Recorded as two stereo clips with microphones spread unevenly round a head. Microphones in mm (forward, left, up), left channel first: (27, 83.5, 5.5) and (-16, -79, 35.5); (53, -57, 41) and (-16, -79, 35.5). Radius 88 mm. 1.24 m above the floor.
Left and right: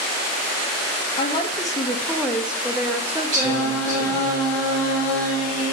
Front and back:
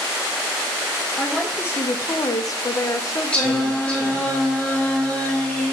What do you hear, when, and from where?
1.2 s a woman speaking: 100° left, 0.5 m; by 4.3 s 30° right, 1.5 m
3.3 s singing: 60° right, 2.5 m